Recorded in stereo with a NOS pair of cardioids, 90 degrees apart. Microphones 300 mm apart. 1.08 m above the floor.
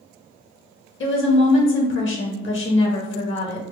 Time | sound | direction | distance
1.0 | a woman speaking | 40° left | 1.4 m